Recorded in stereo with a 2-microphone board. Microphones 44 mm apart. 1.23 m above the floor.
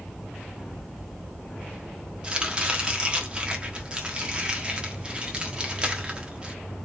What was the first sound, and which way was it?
Chopping, 20° right (ahead or behind).